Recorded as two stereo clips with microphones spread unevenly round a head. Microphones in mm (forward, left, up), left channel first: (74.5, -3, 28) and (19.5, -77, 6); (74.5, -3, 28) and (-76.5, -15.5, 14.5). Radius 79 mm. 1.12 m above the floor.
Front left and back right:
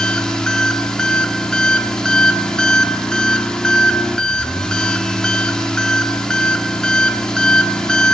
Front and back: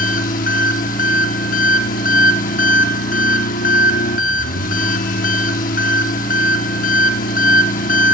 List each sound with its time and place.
0.0 s an engine running: 20° right, 1.0 m